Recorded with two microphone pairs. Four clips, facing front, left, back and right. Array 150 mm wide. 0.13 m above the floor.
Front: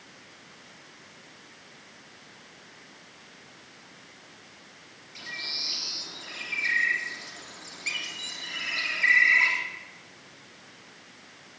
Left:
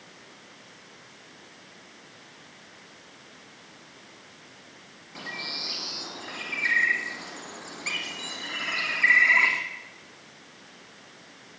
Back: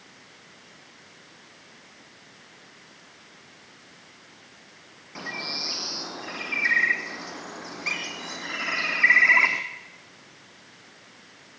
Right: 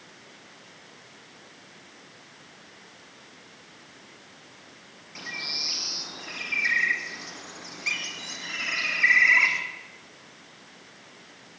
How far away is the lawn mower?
I don't hear a lawn mower.